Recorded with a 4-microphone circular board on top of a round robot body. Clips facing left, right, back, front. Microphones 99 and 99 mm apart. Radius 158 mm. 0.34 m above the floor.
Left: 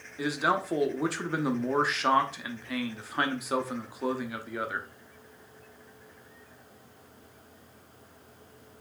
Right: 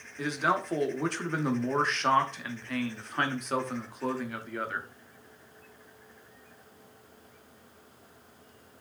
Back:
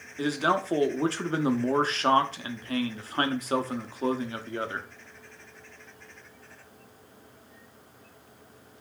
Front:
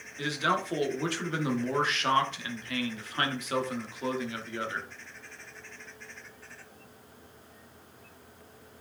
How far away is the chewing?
No chewing in this recording.